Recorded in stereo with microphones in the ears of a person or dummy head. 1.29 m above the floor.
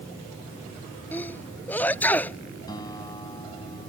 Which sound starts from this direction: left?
A guitar, at 2.7 s.